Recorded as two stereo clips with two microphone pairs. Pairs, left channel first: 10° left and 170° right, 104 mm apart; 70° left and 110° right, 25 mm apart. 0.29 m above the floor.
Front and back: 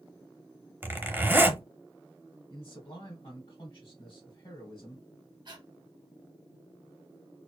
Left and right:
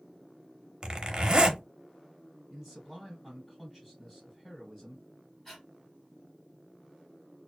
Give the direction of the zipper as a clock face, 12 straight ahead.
4 o'clock.